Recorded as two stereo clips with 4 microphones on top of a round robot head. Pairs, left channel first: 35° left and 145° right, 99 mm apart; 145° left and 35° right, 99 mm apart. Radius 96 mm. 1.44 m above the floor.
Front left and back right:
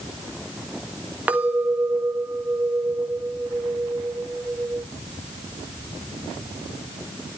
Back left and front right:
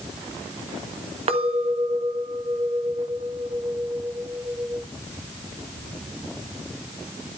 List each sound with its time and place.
1.3 s a clink: 65° right, 1.6 m